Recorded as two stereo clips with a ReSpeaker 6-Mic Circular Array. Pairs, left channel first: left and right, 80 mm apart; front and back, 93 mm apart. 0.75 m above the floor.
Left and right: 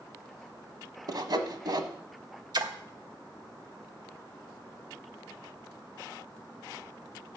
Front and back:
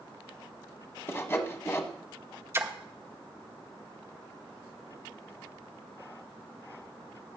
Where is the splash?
120° right, 1.0 m.